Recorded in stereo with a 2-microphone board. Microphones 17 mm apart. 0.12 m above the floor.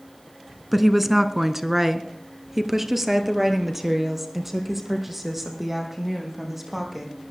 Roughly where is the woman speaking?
Centre.